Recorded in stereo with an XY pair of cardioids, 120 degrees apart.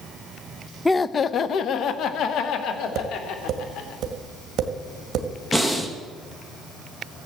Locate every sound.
0.8 s laughter: 10° left, 0.5 m; by 4.0 s 75° left, 3.5 m
3.0 s tapping: 60° right, 1.9 m
5.5 s breathing: 10° left, 1.7 m